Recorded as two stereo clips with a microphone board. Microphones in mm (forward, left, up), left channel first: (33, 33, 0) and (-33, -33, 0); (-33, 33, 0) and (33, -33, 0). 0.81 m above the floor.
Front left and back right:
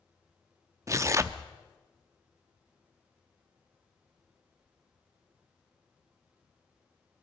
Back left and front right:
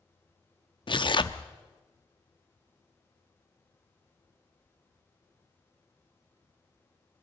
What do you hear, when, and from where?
0.9 s tearing paper: 170° left, 0.6 m